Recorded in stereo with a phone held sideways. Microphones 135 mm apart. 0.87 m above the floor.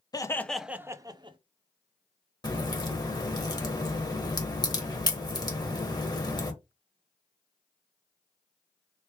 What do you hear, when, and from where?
0.1 s laughter: 30° left (ahead or behind), 0.6 m; by 1.4 s 40° right (ahead or behind), 0.8 m
2.4 s a crack: 30° left (ahead or behind), 1.0 m